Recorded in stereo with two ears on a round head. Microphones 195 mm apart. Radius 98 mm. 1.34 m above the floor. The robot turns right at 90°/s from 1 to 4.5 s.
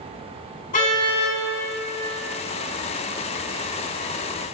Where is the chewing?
I don't hear chewing.